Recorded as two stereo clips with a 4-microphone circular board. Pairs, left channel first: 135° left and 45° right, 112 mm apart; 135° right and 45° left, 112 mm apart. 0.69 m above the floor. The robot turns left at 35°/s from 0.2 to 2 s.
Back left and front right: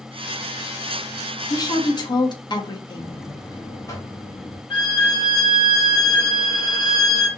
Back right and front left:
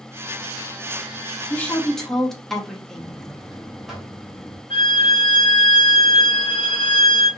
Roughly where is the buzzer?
Behind left.